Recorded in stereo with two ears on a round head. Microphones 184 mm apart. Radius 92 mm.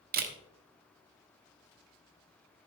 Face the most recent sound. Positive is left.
turn(degrees=-45)  # may be behind; listen again after turning